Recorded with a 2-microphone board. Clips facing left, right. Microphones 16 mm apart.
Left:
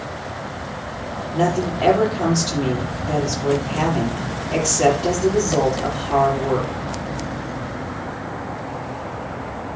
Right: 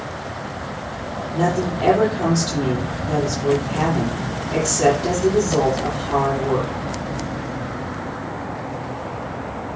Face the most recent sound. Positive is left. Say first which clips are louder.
# left 1 dB
turn(degrees=30)  # may be behind; listen again after turning